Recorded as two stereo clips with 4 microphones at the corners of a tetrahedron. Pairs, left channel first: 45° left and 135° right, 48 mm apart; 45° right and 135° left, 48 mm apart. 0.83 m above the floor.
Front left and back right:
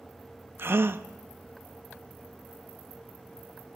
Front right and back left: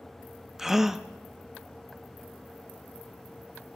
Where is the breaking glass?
I don't hear breaking glass.